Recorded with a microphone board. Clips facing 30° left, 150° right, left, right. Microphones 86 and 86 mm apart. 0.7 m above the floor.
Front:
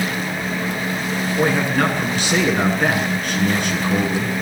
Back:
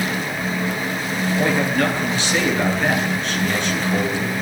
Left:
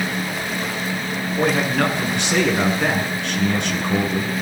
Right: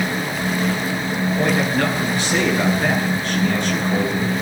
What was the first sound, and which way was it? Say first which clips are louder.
A man speaking: front 1 dB, left 2 dB; 70° left.